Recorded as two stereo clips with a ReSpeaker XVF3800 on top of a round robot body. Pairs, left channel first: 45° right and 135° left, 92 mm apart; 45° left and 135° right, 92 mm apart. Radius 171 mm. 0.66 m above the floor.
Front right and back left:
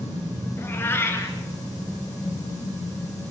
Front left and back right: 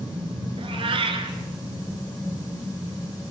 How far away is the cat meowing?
About 2.5 m.